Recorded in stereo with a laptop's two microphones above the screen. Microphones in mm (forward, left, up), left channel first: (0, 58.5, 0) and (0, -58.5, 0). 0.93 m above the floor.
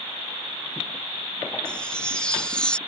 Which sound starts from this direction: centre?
A chime, at 1.6 s.